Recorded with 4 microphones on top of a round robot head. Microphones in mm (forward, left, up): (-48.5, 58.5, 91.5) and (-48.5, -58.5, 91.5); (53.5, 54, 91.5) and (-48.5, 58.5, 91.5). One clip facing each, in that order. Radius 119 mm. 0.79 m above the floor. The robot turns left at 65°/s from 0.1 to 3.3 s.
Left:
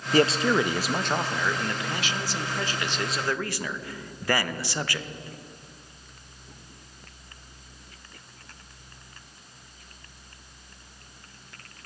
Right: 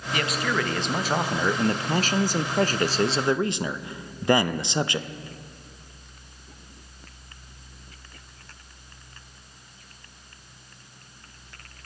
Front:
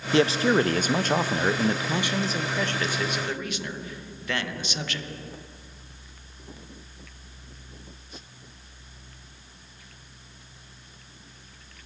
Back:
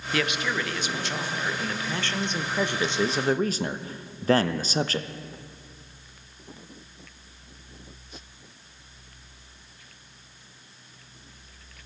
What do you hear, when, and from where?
0.1 s a man speaking: 55° left, 0.6 m; by 5.1 s 150° right, 0.6 m